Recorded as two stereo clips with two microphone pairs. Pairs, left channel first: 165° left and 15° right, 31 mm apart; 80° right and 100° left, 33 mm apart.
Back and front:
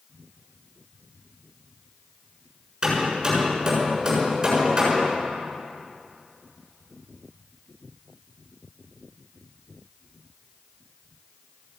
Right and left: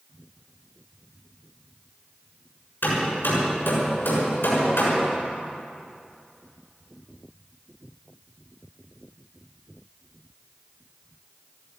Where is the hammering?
85° right, 6.5 m.